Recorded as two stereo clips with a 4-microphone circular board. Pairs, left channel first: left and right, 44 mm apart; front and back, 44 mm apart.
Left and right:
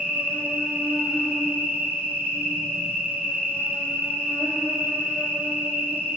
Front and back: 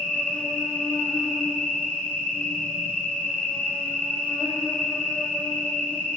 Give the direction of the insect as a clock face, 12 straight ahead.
2 o'clock.